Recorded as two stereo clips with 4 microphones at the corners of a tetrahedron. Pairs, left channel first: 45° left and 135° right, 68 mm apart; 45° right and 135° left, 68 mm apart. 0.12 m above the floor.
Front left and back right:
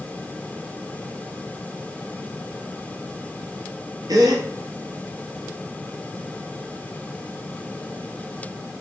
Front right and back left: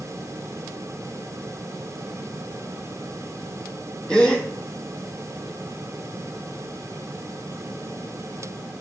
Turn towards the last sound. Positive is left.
turn(degrees=-120)